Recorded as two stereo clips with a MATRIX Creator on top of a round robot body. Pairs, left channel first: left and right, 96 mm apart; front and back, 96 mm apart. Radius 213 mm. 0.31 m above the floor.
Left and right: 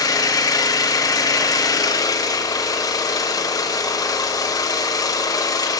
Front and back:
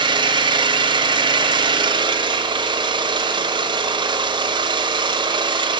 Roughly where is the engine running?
Behind left.